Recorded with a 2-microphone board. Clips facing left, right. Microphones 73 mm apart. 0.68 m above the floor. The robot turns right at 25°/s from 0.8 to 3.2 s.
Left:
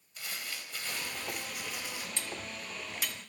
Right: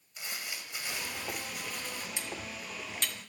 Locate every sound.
0.2 s crumpling: 15° right, 0.9 m; by 2.1 s 15° left, 0.9 m
2.2 s cutlery clinking: 15° right (ahead or behind), 0.5 m; by 3.3 s 10° left (ahead or behind), 0.5 m